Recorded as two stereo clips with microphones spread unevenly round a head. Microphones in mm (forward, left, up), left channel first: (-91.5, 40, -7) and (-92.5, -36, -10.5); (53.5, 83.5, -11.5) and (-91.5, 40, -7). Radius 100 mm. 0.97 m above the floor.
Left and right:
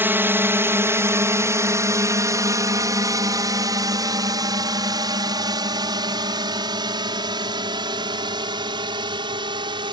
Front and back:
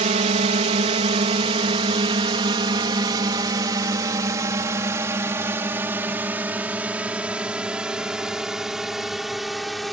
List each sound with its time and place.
0.0 s a drone: 135° right; by 9.9 s 70° right